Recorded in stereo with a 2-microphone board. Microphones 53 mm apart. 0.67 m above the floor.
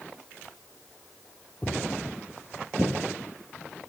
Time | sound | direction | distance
1.6 | footsteps | 15° left (ahead or behind) | 1.0 m